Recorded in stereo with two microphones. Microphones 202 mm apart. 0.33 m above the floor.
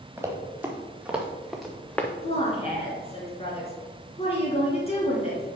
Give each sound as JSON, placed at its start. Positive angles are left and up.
{"t": 0.2, "sound": "running footsteps", "side_deg": -10, "distance_m": 2.0}
{"t": 2.2, "sound": "a woman speaking", "side_deg": 30, "distance_m": 3.5}